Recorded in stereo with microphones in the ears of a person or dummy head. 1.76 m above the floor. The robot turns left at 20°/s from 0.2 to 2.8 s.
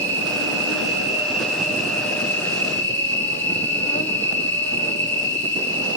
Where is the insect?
150° right, 1.1 m; by 6.0 s 160° left, 1.1 m.